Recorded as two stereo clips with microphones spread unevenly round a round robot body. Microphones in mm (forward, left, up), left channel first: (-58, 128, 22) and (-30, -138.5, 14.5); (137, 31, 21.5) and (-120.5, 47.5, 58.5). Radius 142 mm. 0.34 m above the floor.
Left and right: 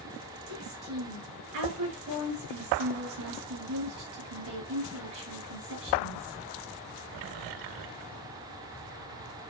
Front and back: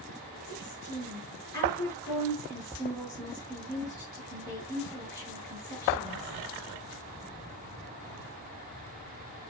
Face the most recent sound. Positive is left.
turn(degrees=-80)